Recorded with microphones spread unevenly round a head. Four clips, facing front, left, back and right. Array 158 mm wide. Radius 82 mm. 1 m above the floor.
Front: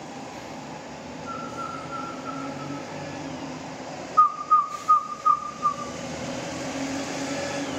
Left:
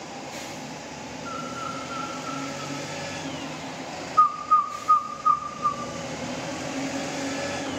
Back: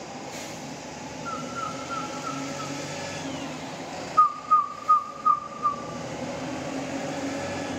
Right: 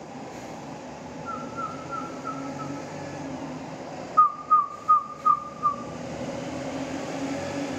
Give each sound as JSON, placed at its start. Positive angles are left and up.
{"t": 1.2, "sound": "a bird", "azimuth_deg": 145, "distance_m": 3.0}
{"t": 4.2, "sound": "a bird", "azimuth_deg": -105, "distance_m": 0.6}